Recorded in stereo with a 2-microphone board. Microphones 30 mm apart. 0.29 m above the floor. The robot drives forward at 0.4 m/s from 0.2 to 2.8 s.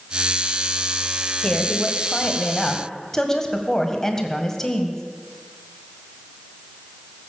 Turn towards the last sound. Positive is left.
turn(degrees=15)  # may be behind; listen again after turning